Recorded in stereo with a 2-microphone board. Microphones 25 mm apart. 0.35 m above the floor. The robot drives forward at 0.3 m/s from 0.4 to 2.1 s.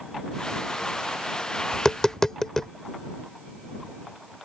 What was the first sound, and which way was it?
Tapping, 20° left (ahead or behind).